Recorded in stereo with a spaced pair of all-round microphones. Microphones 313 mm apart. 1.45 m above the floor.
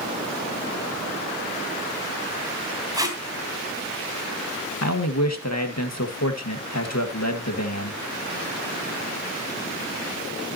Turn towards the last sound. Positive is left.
turn(degrees=55)  # may be behind; listen again after turning